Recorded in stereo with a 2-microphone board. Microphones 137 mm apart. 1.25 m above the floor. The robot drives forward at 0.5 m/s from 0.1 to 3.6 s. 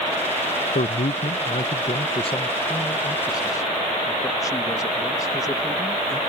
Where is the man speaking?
75° left (ahead or behind); by 6.2 s 25° left (ahead or behind).